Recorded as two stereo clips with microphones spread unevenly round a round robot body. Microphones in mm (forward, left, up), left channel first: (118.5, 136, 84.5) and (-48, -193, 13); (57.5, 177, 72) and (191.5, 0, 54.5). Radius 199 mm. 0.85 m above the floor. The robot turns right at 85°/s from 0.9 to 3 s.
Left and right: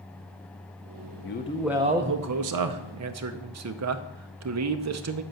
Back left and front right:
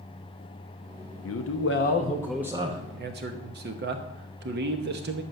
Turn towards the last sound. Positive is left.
turn(degrees=-85)